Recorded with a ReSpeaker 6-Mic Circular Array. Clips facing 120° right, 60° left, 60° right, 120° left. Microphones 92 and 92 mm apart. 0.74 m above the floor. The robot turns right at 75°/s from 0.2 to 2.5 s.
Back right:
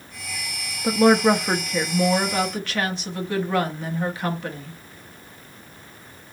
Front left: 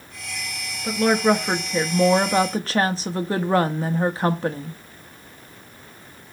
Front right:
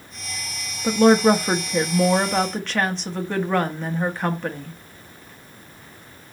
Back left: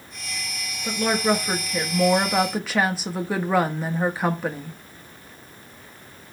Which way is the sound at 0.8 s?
85° right.